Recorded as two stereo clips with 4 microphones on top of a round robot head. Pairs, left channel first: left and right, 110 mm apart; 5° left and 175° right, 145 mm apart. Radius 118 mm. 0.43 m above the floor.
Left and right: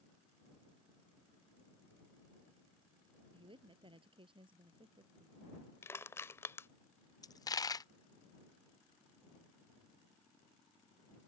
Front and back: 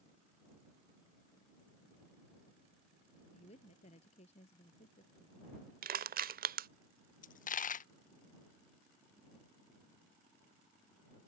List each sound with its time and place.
3.3 s a woman speaking: 50° right
5.8 s crushing: 165° left
7.2 s a dropped coin: 30° left